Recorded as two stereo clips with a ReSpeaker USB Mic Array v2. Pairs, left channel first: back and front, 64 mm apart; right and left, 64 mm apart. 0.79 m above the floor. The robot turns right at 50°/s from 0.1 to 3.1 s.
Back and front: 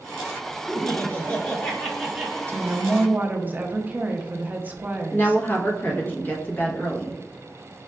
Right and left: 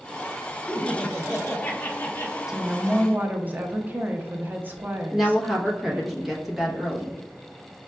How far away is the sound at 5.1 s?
About 0.8 m.